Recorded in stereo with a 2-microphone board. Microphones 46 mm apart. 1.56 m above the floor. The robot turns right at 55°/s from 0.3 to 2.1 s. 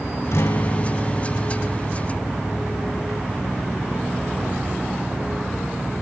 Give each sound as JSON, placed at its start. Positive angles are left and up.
{"t": 0.3, "sound": "a guitar", "azimuth_deg": 75, "distance_m": 0.6}